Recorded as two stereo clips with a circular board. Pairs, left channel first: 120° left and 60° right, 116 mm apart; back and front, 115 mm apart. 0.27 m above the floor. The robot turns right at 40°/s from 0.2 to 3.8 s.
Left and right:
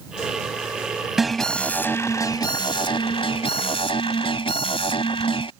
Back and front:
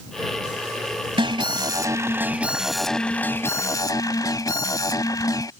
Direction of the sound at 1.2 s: 25° left.